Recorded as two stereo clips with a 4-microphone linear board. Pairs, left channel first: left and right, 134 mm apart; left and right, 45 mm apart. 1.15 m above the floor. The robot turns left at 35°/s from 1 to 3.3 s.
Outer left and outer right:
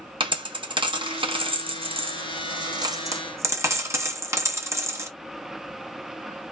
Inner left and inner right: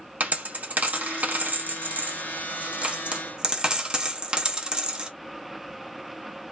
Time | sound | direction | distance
0.2 | a dropped coin | 40° right (ahead or behind) | 0.6 m